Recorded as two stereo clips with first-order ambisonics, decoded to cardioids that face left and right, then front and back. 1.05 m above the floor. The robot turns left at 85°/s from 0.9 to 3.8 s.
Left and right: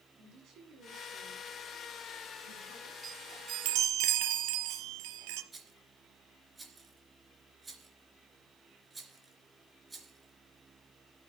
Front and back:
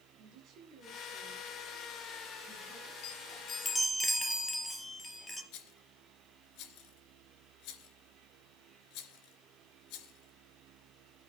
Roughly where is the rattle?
Ahead.